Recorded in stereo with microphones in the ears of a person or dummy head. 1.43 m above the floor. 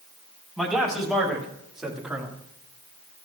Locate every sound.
0.6 s a man speaking: 5° left (ahead or behind), 3.5 m; by 2.3 s 5° right (ahead or behind), 1.8 m